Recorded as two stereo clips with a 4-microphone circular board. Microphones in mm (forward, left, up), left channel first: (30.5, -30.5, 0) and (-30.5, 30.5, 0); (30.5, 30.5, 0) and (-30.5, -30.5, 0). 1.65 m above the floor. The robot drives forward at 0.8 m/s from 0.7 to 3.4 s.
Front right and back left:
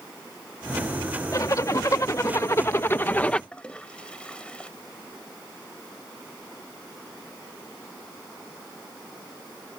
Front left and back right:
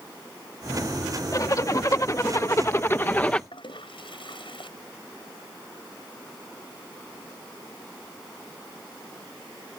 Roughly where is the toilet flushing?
Ahead left.